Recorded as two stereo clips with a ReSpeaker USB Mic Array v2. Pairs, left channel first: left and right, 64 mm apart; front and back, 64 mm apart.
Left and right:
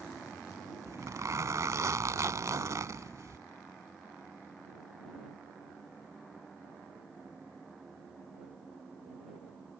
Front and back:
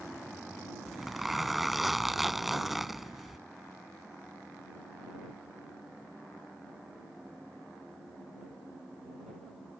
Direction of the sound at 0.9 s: 95° right.